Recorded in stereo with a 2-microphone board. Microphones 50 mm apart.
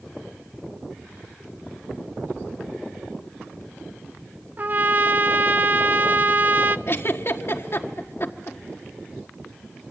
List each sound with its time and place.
4.6 s a trumpet: 35° right (ahead or behind), 0.8 m
6.9 s a giggle: 55° left (ahead or behind), 1.4 m